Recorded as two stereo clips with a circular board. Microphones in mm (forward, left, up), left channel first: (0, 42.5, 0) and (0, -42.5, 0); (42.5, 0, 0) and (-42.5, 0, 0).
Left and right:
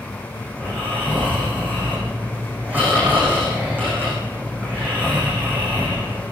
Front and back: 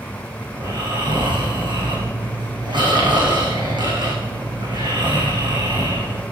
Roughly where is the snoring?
Behind.